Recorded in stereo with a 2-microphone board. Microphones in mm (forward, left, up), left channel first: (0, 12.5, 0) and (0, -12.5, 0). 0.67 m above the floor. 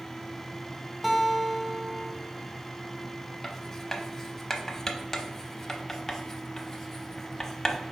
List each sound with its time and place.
1.0 s a guitar: centre (ahead or behind), 0.6 m
3.4 s writing: 15° left (ahead or behind), 0.7 m